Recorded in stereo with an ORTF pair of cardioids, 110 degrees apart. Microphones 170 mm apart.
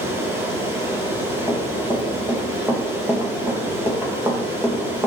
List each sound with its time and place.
0.0 s running water: 15° right, 4 m
1.5 s running footsteps: 15° right, 4 m